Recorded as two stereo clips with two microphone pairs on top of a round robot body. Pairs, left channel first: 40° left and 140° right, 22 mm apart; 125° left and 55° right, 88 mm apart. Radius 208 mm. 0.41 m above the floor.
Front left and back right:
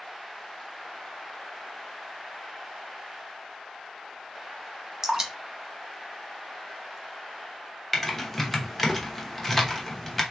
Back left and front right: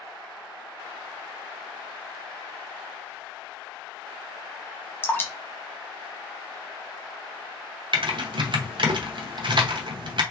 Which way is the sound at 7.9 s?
45° right.